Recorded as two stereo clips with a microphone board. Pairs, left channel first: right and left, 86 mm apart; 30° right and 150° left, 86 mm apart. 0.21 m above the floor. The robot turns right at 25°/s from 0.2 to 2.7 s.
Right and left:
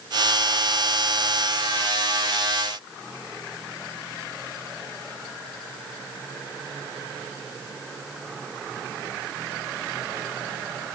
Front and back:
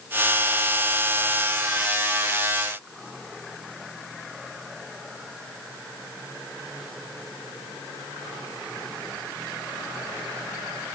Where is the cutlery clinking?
No cutlery clinking in this recording.